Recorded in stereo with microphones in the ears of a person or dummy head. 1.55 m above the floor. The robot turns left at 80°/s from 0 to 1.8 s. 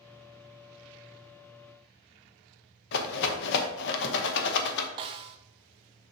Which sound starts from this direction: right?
A snare drum, at 5.0 s.